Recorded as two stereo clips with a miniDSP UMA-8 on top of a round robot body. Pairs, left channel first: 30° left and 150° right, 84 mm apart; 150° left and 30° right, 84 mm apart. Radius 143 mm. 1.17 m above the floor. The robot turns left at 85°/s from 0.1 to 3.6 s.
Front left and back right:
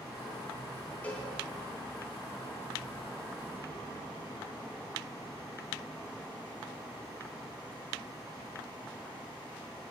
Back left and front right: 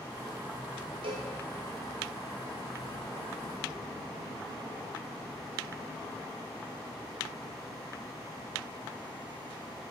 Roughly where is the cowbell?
Ahead right.